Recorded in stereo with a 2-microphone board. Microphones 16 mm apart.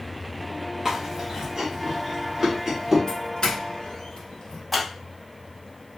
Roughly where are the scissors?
Centre.